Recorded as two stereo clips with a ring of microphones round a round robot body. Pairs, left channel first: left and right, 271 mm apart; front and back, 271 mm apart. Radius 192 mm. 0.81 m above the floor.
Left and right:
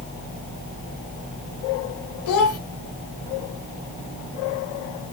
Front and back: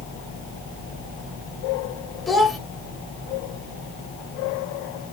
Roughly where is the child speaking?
Left.